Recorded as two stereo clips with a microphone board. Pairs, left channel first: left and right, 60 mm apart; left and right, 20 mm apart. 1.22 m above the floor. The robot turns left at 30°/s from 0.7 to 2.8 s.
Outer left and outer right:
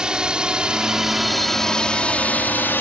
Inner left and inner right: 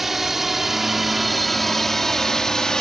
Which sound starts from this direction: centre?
A drone, at 0.0 s.